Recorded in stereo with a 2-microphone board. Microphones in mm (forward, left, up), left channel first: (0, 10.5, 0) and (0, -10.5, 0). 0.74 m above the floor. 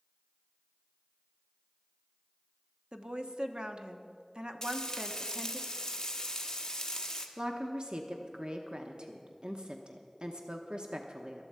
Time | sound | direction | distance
2.9 | a woman speaking | 55° right (ahead or behind) | 1.0 m
4.6 | frying | 30° left (ahead or behind) | 1.3 m
7.4 | a woman speaking | 55° right (ahead or behind) | 1.0 m